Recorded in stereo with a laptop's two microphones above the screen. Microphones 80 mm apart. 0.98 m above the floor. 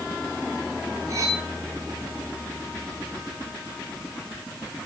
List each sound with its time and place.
1.1 s cutlery clinking: 40° right (ahead or behind), 4 m